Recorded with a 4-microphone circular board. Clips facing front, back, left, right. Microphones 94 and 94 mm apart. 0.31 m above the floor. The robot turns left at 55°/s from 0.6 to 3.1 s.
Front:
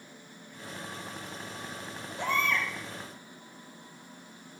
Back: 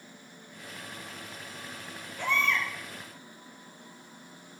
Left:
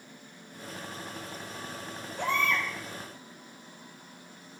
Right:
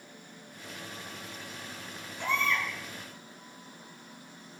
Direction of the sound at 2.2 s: 60° left.